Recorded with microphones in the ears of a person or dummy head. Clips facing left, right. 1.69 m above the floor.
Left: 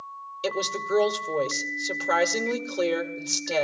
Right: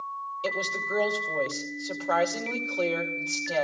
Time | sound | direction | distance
0.4 | a woman speaking | 25° left (ahead or behind) | 2.5 m